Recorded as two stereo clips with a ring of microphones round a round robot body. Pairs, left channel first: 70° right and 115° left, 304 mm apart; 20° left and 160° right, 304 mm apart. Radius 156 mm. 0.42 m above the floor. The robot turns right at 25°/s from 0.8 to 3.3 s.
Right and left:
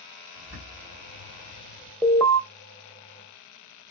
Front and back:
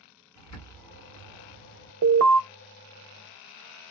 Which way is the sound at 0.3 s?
35° left.